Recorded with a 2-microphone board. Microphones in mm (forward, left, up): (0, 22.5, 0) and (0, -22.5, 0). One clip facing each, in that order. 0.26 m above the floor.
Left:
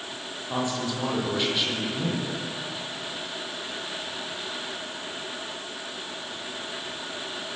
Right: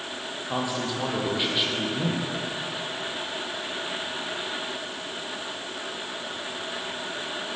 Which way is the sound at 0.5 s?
10° right (ahead or behind).